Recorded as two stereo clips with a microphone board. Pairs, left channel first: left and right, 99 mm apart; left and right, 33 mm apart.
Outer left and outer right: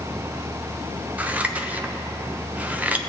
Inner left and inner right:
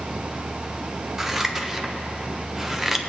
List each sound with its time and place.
1.2 s scissors: 15° right (ahead or behind), 0.6 m